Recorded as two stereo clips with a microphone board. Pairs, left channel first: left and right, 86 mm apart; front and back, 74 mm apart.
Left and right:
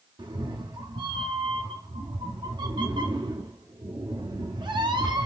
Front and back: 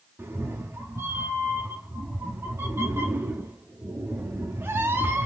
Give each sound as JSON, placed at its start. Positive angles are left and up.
{"t": 0.2, "sound": "a cat meowing", "azimuth_deg": -120, "distance_m": 0.5}